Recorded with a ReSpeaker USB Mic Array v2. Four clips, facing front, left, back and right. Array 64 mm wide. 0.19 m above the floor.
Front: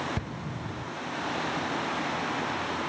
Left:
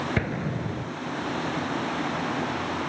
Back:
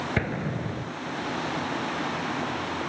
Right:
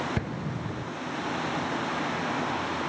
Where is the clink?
No clink in this recording.